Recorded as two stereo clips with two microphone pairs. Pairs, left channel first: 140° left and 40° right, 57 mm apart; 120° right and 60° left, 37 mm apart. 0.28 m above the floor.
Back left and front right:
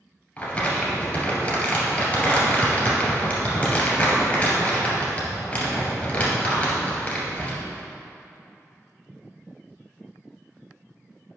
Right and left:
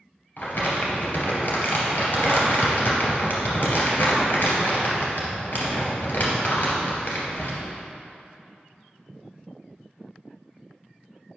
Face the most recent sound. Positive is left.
turn(degrees=-150)